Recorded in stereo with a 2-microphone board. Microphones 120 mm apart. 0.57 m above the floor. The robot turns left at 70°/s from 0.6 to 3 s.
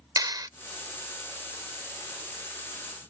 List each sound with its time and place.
0.2 s a clap: 35° right (ahead or behind)